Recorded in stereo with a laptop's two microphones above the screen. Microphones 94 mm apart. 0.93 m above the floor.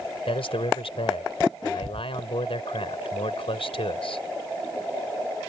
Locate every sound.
0.3 s a man speaking: 85° left